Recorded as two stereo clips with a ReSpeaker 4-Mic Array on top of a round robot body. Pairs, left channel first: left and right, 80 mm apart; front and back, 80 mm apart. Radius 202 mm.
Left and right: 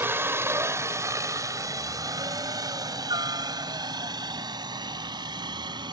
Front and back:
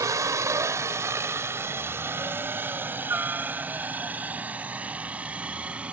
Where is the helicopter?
145° right; by 5.9 s 105° right.